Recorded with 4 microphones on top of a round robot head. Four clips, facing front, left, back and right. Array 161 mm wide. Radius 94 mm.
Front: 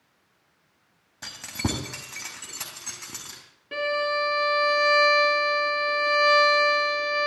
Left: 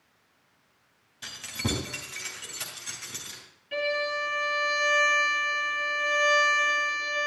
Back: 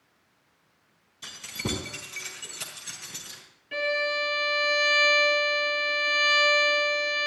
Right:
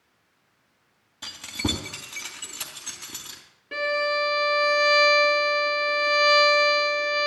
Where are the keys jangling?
25° right, 2.5 m.